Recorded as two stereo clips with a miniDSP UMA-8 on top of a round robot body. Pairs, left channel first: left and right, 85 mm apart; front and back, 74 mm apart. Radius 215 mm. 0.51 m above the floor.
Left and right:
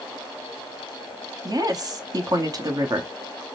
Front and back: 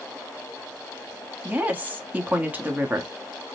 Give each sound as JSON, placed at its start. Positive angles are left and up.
{"t": 1.4, "sound": "a woman speaking", "azimuth_deg": -115, "distance_m": 1.2}